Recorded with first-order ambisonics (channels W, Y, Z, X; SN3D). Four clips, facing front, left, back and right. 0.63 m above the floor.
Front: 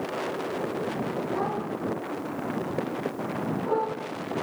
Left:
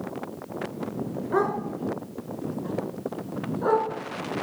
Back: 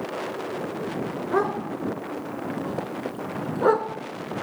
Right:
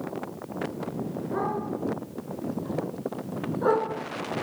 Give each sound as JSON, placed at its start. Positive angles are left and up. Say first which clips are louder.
{"t": 1.3, "sound": "a dog barking", "louder": "left 4 dB, back 4 dB", "azimuth_deg": 150, "distance_m": 3.0}